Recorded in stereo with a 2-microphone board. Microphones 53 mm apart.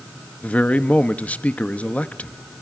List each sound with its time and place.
0.4 s a man speaking: 25° left (ahead or behind), 0.8 m